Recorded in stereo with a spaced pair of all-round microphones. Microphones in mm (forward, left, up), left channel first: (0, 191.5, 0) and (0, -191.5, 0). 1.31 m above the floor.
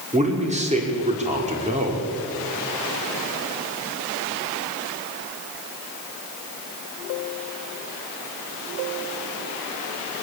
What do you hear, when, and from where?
0.1 s a man speaking: 20° right (ahead or behind), 4.5 m